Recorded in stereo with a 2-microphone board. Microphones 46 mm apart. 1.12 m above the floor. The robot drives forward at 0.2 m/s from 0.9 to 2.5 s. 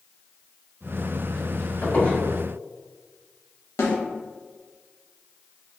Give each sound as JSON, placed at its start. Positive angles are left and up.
{"t": 1.8, "sound": "a squeak", "side_deg": 35, "distance_m": 1.5}
{"t": 3.8, "sound": "a snare drum", "side_deg": 80, "distance_m": 0.9}